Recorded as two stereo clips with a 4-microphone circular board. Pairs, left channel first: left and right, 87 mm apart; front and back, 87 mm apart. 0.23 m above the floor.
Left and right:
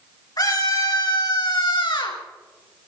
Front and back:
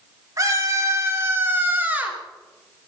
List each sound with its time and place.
0.4 s a scream: 130° left, 4.5 m; by 2.2 s 105° left, 3.5 m